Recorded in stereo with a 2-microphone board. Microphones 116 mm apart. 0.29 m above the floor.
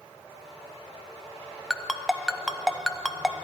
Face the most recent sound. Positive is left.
turn(degrees=0)  # may be behind; listen again after turning